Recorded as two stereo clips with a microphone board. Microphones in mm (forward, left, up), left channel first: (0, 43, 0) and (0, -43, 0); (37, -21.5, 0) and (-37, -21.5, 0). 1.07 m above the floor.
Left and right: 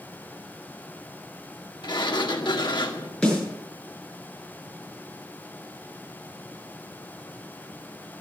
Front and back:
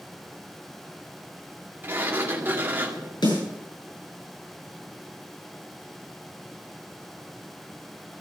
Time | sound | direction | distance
1.8 | a sliding door | 115° left | 1.8 m
3.2 | a snare drum | 10° left | 9 m